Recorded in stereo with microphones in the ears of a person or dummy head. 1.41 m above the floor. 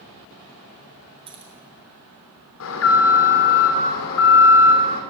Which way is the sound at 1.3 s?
25° right (ahead or behind).